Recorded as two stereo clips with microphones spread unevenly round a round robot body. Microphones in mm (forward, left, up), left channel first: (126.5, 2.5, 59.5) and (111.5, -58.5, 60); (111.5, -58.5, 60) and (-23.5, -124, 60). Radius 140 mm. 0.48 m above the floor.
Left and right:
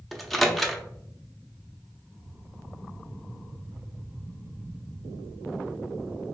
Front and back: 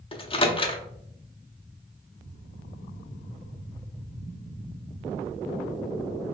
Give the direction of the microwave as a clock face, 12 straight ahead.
12 o'clock.